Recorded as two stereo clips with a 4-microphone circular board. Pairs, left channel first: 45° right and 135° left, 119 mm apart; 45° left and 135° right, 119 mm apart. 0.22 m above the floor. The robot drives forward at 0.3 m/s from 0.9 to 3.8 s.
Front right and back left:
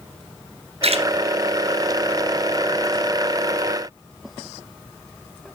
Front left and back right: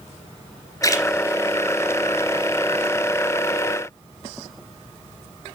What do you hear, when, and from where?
0.8 s a splash: 105° left, 1.9 m